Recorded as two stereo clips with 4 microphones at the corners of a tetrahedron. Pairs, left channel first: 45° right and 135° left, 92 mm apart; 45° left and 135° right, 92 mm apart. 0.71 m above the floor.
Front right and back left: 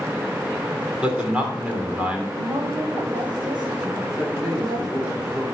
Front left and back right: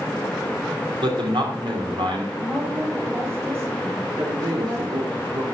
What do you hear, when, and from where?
1.0 s a man speaking: 150° right, 2.5 m
2.3 s a woman speaking: 165° left, 2 m
4.2 s a man speaking: 135° right, 2.0 m